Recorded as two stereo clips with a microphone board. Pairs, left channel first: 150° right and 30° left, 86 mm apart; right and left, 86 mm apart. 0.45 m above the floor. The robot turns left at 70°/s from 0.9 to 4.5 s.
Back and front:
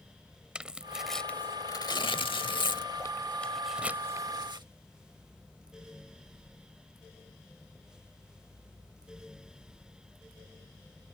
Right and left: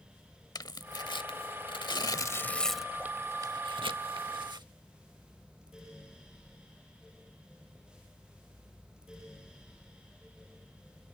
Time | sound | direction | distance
0.6 | tearing paper | 50° right | ?